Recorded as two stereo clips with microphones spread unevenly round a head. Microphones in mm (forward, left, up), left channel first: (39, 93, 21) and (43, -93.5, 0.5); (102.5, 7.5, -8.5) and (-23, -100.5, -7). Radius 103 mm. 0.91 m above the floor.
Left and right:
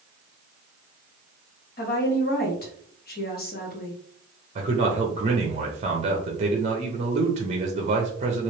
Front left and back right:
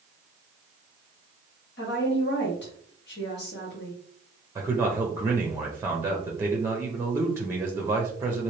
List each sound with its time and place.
1.8 s a woman speaking: 55° left, 1.4 m
4.5 s a man speaking: 70° right, 0.7 m